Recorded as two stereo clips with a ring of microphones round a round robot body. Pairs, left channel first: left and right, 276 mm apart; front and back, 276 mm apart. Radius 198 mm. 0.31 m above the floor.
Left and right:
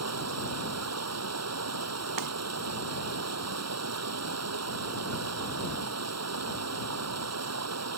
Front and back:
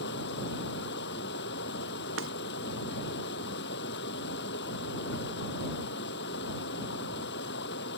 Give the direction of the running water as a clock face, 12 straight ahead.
2 o'clock.